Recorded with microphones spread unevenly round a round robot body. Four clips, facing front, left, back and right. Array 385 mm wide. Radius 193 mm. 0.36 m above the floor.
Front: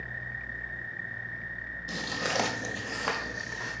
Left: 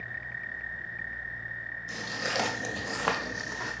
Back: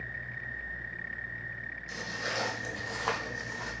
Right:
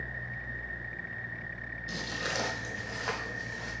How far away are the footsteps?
About 0.7 m.